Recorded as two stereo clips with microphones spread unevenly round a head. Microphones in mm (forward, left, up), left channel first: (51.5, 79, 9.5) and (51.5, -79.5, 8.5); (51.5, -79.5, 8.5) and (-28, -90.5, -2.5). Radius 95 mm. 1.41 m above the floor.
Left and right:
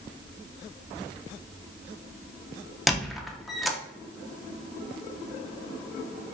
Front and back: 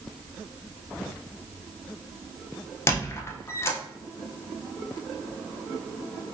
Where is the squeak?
Straight ahead, 0.5 m.